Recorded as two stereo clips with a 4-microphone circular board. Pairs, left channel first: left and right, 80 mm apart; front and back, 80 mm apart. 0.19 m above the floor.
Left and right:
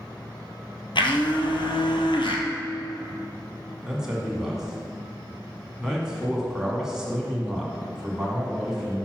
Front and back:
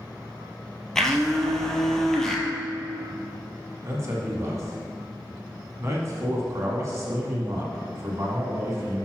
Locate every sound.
0.9 s a blender: 85° left, 0.9 m
3.8 s a man speaking: 170° right, 1.4 m